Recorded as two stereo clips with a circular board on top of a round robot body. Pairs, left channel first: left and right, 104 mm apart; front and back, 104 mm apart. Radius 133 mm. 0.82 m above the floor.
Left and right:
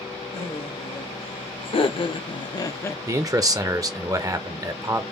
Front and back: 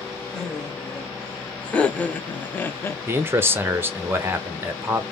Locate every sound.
0.3 s laughter: 85° left, 1.9 m; by 3.0 s 40° left, 0.6 m
3.1 s a man speaking: 125° right, 0.7 m